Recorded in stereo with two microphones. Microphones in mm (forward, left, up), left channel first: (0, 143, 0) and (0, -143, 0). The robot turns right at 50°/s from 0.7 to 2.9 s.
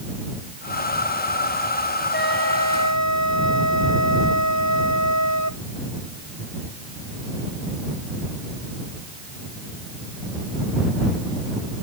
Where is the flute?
35° left; by 5.6 s 75° left.